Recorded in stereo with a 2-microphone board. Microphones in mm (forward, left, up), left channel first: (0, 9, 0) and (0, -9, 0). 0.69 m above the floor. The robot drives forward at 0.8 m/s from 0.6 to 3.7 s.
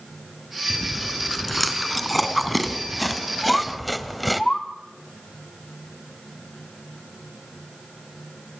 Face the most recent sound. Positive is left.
turn(degrees=25)  # may be behind; listen again after turning